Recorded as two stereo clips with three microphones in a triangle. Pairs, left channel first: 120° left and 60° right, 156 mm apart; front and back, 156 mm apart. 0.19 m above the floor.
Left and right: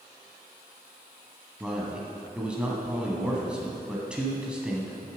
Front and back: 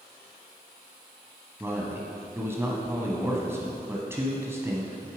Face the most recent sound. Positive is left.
turn(degrees=-135)